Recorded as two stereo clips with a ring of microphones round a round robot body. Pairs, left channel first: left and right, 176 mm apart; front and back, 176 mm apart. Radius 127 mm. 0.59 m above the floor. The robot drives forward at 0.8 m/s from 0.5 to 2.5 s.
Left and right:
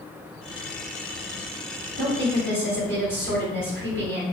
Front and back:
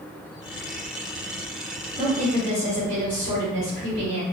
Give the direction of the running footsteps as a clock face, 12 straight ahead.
No running footsteps in this recording.